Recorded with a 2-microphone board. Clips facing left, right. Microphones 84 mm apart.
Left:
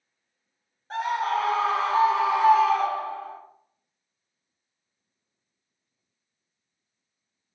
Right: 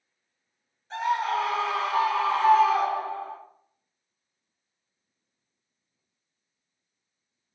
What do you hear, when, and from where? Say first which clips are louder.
0.9 s a scream: even; 50° left (ahead or behind), 1.1 m; by 3.4 s 35° right (ahead or behind), 0.6 m